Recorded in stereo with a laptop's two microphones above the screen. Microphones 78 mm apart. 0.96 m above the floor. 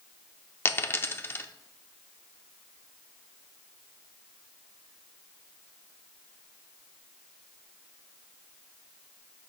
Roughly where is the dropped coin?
Left.